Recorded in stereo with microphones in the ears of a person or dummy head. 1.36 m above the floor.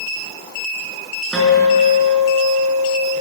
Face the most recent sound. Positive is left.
turn(degrees=5)  # may be behind; listen again after turning